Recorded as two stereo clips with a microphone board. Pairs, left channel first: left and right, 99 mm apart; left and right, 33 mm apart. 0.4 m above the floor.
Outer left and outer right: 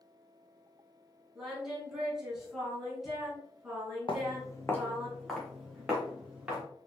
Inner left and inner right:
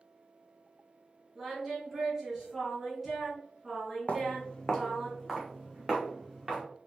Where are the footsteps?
55° left (ahead or behind), 1.0 m; by 6.6 s 10° right (ahead or behind), 3 m.